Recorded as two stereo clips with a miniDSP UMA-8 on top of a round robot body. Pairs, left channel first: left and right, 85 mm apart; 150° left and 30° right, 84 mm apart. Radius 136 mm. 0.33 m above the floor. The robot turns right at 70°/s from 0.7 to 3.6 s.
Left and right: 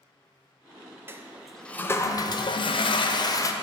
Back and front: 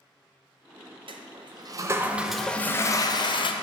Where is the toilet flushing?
30° right, 0.6 m; by 3.5 s 140° left, 0.6 m.